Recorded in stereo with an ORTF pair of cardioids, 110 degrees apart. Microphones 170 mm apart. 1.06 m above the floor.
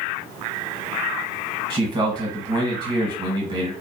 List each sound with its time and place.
1.7 s a man speaking: 25° right, 1.2 m